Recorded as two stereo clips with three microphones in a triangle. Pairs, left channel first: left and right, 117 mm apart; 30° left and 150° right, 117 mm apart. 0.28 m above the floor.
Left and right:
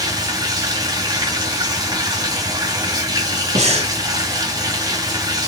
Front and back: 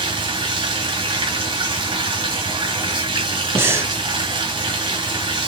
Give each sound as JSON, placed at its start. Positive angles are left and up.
{"t": 0.0, "sound": "running water", "azimuth_deg": -130, "distance_m": 1.3}
{"t": 3.5, "sound": "breathing", "azimuth_deg": -85, "distance_m": 1.2}